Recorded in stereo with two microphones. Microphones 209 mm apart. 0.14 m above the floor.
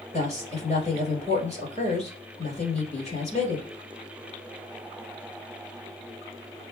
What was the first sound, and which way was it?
A woman speaking, 30° left (ahead or behind).